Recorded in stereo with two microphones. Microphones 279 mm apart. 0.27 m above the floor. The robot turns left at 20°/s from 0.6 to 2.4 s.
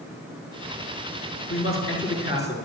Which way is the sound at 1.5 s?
50° left (ahead or behind).